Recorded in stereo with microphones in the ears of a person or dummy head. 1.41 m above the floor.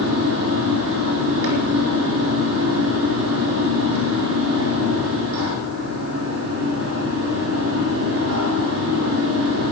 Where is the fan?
65° right (ahead or behind), 4 m.